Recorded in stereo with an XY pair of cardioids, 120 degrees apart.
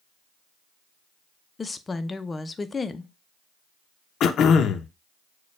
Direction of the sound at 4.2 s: 55° left.